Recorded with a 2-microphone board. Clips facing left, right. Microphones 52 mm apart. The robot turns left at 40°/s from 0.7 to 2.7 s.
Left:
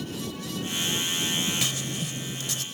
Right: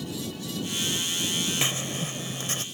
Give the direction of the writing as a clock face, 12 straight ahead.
2 o'clock.